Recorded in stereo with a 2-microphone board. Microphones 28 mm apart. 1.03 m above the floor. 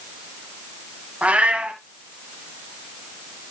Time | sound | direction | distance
1.2 | a cat meowing | 55° right (ahead or behind) | 2.0 m